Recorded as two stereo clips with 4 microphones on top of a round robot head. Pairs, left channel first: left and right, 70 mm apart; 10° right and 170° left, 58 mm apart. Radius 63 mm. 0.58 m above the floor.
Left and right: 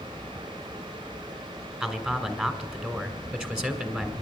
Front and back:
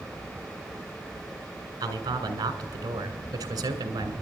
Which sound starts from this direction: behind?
A man speaking, at 1.8 s.